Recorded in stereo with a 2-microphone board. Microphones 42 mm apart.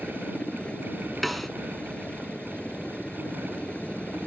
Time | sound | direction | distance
0.0 | a helicopter | 25° left (ahead or behind) | ?
1.2 | a snare drum | centre (ahead or behind) | ?